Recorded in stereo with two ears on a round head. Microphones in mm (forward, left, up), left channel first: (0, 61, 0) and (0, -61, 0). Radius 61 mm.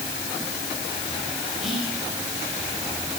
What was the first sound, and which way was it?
Whispering, centre (ahead or behind).